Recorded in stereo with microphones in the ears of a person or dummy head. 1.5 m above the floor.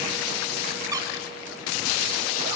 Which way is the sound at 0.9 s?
20° right (ahead or behind).